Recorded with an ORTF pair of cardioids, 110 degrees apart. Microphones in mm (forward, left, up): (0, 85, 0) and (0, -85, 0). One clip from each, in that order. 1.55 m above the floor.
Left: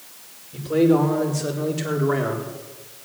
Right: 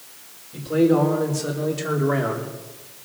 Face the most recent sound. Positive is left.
turn(degrees=-5)